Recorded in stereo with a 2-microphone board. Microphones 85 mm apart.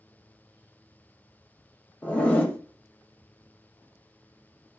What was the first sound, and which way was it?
A zipper, 15° left (ahead or behind).